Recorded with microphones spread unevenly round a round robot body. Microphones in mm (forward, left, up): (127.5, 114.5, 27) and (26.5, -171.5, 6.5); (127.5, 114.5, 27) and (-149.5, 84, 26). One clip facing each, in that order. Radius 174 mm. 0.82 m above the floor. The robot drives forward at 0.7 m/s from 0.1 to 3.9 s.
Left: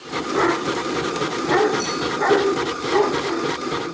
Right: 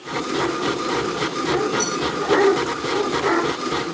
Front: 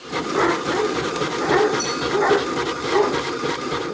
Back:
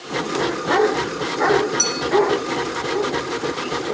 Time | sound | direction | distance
1.8 | a clink | 170° left | 6 m